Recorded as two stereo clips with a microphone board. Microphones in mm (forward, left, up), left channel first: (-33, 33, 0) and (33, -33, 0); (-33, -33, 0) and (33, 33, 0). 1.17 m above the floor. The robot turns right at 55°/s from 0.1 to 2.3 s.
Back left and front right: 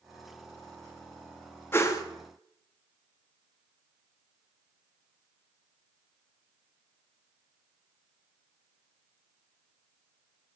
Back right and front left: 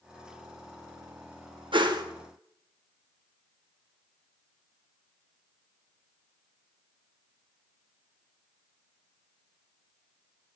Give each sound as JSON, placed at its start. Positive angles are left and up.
{"t": 1.7, "sound": "a whoosh", "azimuth_deg": 70, "distance_m": 1.1}